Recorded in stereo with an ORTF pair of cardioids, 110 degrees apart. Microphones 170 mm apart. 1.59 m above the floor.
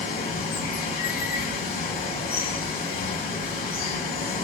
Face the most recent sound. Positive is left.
turn(degrees=55)